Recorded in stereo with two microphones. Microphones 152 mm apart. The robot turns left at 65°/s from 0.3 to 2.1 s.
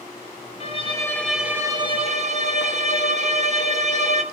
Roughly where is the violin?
Ahead left.